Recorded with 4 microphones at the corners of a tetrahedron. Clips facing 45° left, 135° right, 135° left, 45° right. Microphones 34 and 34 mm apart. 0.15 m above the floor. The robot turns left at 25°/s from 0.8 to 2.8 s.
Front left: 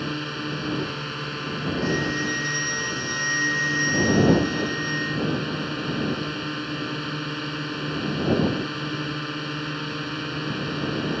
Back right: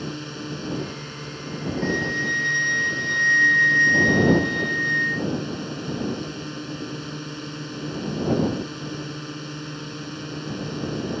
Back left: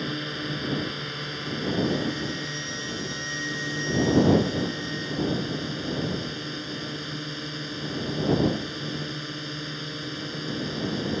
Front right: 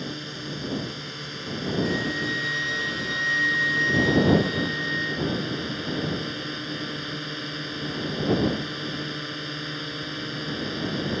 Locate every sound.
0.0 s a drone: 75° left; by 11.2 s 25° left
1.8 s a flute: 60° right; by 5.3 s 85° right